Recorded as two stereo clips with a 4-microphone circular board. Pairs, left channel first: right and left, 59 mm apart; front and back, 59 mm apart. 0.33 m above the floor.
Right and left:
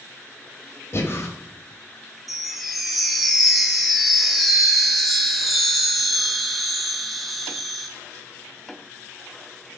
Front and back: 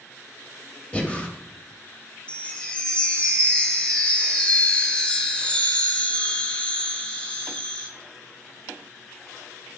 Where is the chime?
Straight ahead, 0.6 m.